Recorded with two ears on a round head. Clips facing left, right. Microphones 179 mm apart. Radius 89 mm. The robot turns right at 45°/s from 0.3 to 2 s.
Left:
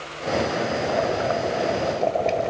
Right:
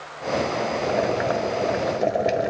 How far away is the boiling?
About 0.9 m.